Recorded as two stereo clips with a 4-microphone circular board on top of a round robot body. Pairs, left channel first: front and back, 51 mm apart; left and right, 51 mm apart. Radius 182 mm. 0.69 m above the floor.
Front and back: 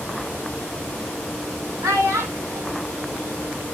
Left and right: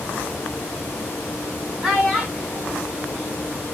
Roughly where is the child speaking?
Behind.